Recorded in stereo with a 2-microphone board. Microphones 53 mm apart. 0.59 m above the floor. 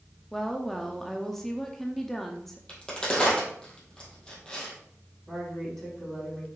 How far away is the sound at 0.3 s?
About 0.6 m.